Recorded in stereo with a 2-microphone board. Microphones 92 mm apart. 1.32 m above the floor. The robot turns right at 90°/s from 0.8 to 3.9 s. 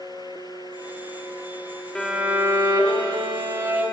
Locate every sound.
1.9 s a violin: 170° left, 1.1 m; by 3.8 s 20° right, 1.1 m